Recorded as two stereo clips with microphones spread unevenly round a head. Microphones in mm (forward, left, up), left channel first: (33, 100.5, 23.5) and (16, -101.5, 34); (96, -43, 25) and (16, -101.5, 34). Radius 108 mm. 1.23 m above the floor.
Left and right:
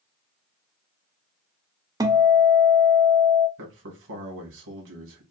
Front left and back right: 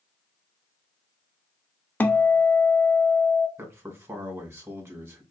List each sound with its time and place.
2.0 s a guitar: 35° right, 0.5 m
3.6 s a man speaking: 80° right, 2 m